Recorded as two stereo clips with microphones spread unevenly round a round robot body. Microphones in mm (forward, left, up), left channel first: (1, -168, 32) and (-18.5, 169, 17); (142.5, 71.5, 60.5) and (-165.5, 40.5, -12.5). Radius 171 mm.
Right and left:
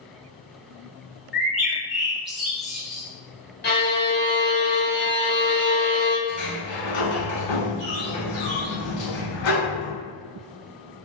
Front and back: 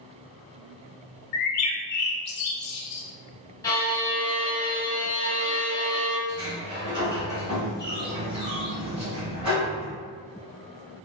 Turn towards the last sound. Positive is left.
turn(degrees=-95)